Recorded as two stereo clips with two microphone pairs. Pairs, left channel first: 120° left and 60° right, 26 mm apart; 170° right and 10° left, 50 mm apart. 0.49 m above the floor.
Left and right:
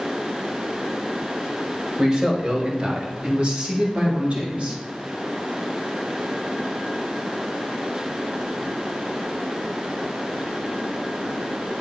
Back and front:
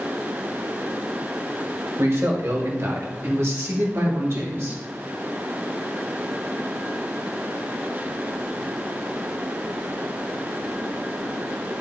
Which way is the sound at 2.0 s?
5° right.